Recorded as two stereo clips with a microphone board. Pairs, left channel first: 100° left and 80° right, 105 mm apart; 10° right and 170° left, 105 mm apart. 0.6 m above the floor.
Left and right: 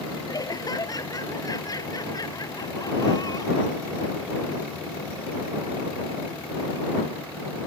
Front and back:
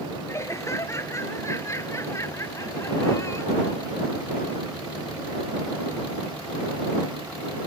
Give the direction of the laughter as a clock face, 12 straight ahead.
10 o'clock.